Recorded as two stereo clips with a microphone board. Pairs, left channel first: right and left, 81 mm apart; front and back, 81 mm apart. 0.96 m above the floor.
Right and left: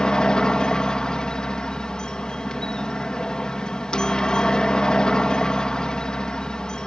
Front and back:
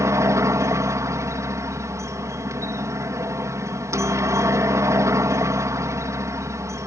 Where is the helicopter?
165° right.